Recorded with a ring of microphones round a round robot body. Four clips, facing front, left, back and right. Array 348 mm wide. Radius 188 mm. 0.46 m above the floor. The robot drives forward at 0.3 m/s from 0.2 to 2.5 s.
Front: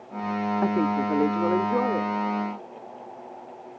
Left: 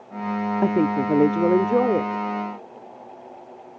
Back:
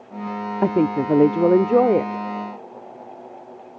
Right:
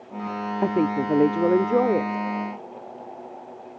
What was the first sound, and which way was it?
A woman speaking, 170° left.